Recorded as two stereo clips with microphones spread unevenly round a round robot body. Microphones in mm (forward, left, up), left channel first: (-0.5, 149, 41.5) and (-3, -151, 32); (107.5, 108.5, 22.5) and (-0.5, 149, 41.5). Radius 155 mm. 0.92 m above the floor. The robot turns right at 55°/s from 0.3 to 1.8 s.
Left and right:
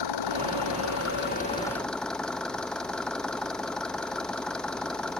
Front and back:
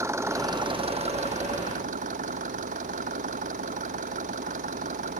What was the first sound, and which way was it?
An engine running, 95° left.